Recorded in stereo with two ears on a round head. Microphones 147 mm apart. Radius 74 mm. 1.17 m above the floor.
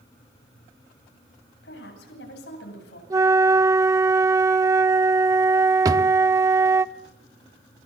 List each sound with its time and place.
1.6 s a woman speaking: 80° left, 9 m
3.1 s a flute: 20° right (ahead or behind), 0.7 m
5.8 s a drawer: 20° right (ahead or behind), 0.8 m